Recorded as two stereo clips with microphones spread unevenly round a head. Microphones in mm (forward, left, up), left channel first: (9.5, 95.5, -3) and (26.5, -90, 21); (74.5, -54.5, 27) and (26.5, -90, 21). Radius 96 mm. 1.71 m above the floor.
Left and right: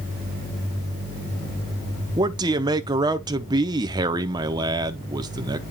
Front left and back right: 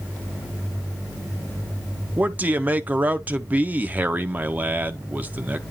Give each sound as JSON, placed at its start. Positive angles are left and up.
{"t": 2.2, "sound": "a man speaking", "azimuth_deg": -100, "distance_m": 0.7}